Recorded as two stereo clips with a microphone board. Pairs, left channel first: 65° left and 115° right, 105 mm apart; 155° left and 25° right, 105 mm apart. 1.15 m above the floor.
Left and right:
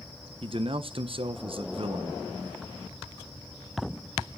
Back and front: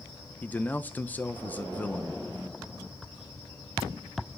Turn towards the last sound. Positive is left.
turn(degrees=-130)